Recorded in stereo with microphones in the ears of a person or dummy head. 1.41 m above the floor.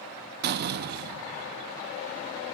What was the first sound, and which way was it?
A door slam, 50° right (ahead or behind).